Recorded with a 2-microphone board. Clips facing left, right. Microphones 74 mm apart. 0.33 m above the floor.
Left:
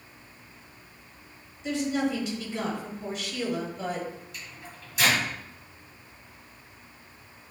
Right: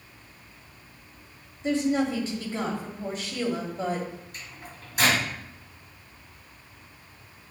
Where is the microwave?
50° right (ahead or behind), 2 m.